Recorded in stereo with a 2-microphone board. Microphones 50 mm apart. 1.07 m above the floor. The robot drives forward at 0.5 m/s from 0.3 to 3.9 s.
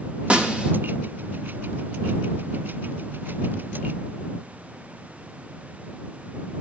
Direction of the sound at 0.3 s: 25° right (ahead or behind).